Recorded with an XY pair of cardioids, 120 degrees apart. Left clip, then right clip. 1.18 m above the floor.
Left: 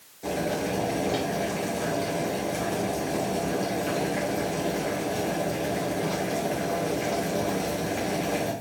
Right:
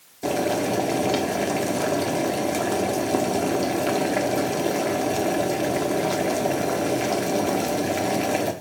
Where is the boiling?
50° right, 0.8 m.